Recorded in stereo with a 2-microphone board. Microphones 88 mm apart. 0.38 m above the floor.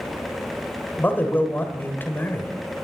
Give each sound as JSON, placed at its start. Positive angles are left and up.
{"t": 1.0, "sound": "a man speaking", "side_deg": 25, "distance_m": 1.2}